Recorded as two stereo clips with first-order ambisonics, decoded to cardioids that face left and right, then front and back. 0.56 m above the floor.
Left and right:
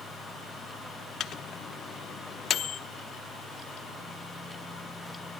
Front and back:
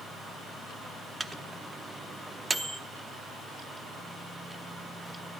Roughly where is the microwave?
Behind left.